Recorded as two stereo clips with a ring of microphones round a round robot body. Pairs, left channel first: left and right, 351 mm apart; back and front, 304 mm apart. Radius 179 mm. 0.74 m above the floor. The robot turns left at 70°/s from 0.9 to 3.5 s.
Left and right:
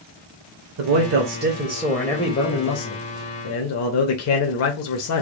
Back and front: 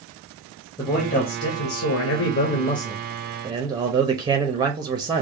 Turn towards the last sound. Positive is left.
turn(degrees=70)